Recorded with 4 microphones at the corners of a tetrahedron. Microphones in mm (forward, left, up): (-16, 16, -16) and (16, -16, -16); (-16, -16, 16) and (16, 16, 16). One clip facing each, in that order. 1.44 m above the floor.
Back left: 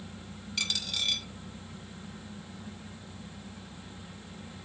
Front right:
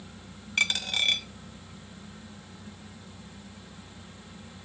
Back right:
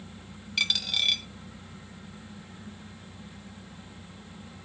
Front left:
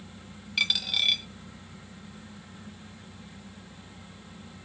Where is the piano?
I don't hear a piano.